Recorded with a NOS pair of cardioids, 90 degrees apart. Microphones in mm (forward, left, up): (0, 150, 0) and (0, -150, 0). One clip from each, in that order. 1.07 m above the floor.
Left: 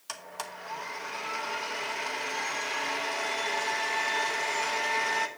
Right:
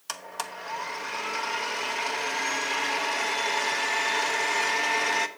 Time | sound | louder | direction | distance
0.1 | a blender | right 4 dB | 20° right | 0.9 m